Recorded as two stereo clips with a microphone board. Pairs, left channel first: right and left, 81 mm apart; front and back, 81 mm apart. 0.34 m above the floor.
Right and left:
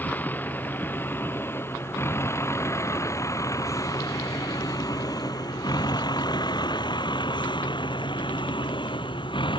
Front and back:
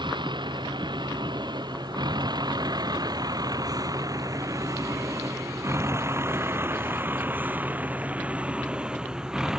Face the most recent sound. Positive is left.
turn(degrees=-95)